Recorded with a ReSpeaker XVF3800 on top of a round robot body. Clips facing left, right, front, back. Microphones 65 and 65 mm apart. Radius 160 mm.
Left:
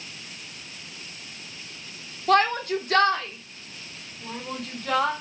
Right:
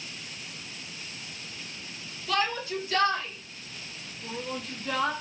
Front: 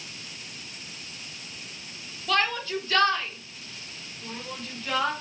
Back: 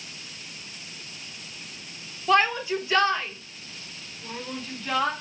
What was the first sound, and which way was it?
A shout, 115° left.